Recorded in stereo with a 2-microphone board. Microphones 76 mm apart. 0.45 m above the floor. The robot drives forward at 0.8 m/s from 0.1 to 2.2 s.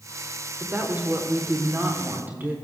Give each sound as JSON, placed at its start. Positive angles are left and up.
{"t": 0.6, "sound": "a woman speaking", "side_deg": -20, "distance_m": 1.4}